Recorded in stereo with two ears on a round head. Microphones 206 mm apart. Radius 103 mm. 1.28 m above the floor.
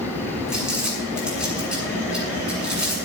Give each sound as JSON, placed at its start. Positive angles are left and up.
{"t": 0.5, "sound": "crumpling", "side_deg": -5, "distance_m": 8.0}